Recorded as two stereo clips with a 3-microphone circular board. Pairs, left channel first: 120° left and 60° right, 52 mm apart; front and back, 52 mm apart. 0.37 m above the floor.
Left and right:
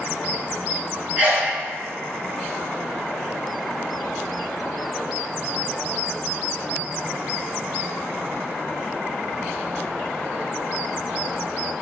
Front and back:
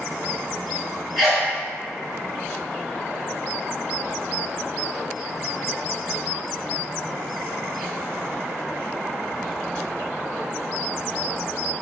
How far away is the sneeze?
About 1.8 m.